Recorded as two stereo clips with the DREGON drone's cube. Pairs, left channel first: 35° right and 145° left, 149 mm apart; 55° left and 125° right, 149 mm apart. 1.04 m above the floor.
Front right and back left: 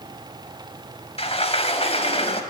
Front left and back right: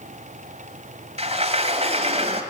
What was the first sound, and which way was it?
A sliding door, 80° right.